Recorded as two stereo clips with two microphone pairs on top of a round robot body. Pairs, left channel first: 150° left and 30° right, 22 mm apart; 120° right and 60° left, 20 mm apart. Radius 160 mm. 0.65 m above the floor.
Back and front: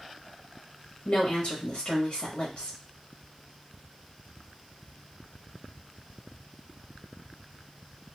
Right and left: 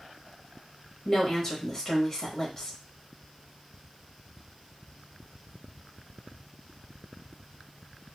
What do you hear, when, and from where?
1.1 s a woman speaking: 170° left, 1.1 m